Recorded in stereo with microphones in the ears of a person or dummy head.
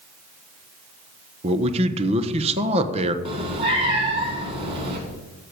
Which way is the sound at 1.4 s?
30° right (ahead or behind).